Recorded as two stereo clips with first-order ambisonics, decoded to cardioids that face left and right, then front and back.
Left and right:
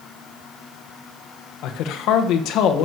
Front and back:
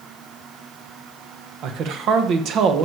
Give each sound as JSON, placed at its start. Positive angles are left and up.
{"t": 1.6, "sound": "a man speaking", "azimuth_deg": 130, "distance_m": 1.2}